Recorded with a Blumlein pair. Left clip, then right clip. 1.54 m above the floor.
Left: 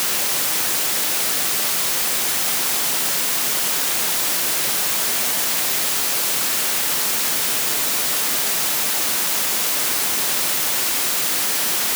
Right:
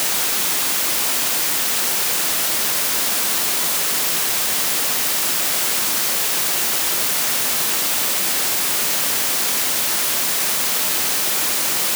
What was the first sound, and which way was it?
Only background noise.